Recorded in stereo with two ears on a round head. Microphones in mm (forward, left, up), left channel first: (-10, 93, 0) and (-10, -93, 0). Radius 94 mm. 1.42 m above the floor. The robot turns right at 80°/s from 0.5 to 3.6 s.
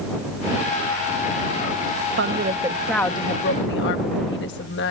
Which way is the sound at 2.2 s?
60° right.